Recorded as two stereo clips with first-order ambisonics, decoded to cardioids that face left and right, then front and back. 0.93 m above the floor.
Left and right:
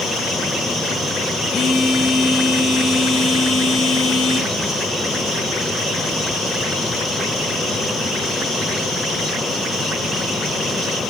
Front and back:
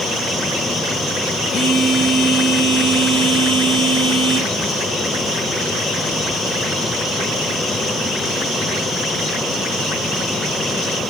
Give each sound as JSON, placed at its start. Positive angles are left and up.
{"t": 1.5, "sound": "a phone buzzing", "azimuth_deg": 45, "distance_m": 1.0}